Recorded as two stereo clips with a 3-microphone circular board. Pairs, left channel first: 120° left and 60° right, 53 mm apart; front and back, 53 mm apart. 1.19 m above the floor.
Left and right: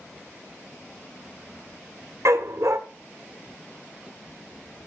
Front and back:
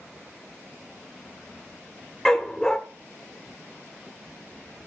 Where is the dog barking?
80° right, 1.7 m.